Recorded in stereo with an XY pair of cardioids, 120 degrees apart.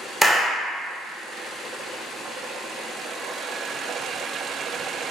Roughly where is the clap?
Ahead.